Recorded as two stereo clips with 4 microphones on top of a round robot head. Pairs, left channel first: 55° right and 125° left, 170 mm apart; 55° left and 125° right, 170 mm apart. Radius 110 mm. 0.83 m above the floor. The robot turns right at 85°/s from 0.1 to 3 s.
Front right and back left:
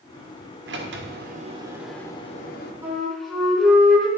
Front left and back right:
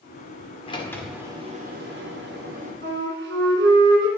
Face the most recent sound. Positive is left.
turn(degrees=-145)